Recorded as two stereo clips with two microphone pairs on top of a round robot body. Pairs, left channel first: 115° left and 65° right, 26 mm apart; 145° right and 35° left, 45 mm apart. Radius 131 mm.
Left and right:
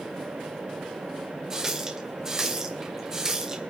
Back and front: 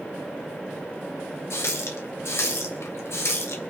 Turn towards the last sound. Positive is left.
turn(degrees=-135)